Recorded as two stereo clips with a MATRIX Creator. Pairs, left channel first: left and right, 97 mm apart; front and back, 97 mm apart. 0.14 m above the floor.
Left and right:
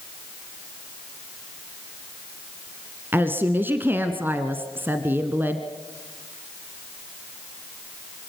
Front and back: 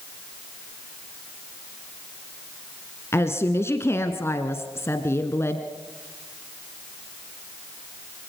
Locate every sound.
3.1 s a woman speaking: 40° right, 1.2 m